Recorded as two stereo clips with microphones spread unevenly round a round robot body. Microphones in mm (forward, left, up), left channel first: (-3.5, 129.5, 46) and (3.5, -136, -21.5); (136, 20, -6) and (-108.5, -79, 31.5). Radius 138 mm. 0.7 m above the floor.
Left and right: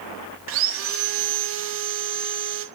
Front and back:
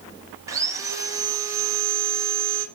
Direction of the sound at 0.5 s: 105° right.